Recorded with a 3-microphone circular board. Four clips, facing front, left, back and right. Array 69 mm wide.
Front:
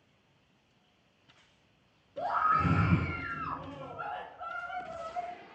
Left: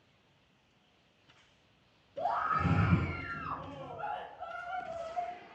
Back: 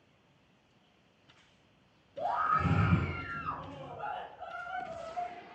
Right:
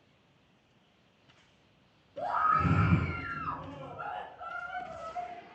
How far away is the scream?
About 4.5 m.